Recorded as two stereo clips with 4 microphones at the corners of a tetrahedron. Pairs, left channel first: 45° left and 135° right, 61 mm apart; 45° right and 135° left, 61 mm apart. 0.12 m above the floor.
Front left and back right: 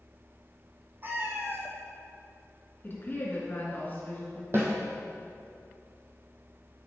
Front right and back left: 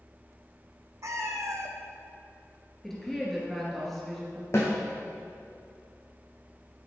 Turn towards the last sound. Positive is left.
turn(degrees=-85)